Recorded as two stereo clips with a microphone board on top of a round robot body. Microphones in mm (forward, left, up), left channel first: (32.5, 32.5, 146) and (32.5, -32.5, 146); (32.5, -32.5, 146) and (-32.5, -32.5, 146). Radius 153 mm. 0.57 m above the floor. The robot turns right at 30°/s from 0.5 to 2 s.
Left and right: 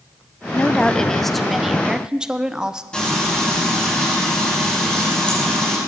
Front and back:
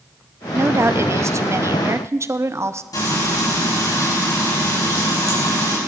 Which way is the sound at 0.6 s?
150° left.